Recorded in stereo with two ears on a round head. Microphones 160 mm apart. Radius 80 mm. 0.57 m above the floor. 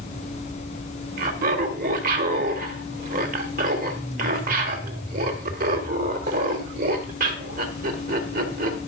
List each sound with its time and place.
1.2 s laughter: 50° right (ahead or behind), 1.6 m